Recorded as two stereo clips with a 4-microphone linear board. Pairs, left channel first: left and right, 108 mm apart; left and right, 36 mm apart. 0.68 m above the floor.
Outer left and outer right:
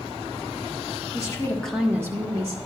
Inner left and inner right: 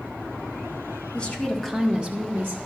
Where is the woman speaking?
30° left (ahead or behind), 1.6 m; by 2.6 s 55° right (ahead or behind), 1.6 m.